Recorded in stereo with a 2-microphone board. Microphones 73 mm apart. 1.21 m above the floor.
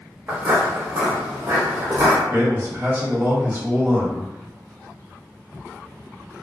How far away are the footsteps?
About 1.2 m.